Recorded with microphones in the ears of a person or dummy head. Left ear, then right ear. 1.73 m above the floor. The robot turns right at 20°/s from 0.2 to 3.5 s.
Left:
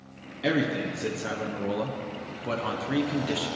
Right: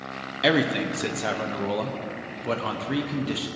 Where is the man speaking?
20° right (ahead or behind), 0.5 m; by 3.5 s 5° left (ahead or behind), 0.5 m.